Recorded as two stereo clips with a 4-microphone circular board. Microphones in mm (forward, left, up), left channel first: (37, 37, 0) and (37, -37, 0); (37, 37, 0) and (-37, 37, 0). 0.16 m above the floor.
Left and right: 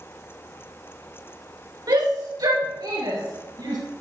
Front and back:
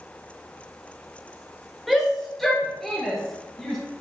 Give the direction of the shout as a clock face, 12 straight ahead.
3 o'clock.